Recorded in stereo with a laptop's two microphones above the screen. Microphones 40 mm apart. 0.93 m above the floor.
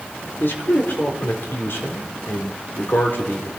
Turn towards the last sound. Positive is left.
turn(degrees=60)  # may be behind; listen again after turning